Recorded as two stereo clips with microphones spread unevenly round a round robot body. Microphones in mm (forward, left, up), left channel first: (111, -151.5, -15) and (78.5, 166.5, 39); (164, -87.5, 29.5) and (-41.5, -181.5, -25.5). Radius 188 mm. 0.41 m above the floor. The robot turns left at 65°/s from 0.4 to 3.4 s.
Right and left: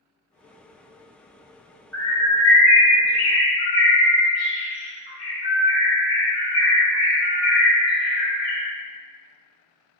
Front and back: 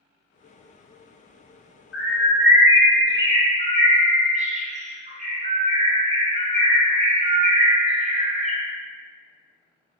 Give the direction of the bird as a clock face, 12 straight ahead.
12 o'clock.